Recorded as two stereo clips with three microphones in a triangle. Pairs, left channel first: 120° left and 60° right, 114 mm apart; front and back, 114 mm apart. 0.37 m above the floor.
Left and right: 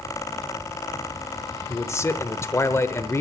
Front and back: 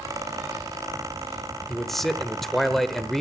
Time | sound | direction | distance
1.7 | a man speaking | 85° left | 0.9 m